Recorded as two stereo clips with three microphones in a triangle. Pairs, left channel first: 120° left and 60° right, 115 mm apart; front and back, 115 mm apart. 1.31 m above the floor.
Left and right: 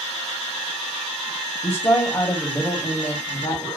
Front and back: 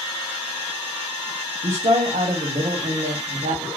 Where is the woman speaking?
Straight behind, 0.9 m.